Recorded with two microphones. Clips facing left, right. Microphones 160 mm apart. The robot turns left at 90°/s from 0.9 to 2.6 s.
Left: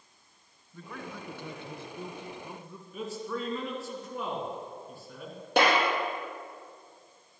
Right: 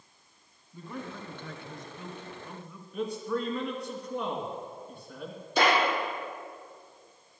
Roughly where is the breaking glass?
I don't hear breaking glass.